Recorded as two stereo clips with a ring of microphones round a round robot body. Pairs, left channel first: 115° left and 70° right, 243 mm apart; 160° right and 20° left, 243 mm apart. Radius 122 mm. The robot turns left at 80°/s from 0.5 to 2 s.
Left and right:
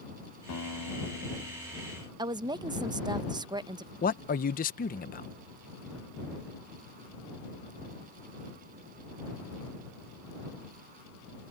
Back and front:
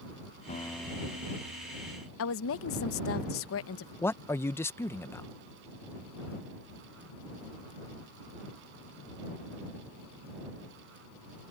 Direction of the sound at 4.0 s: 130° left.